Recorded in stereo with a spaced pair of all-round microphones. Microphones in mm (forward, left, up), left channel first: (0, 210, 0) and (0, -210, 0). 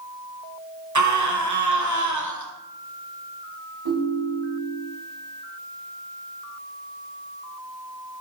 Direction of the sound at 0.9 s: 45° right (ahead or behind).